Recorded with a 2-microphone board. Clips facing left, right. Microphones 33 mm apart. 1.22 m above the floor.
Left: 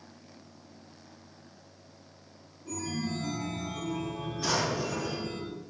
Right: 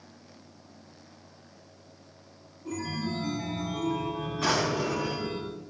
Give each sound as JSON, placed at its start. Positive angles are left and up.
{"t": 2.6, "sound": "a chime", "side_deg": -35, "distance_m": 4.5}
{"t": 4.4, "sound": "a drawer", "side_deg": -55, "distance_m": 7.0}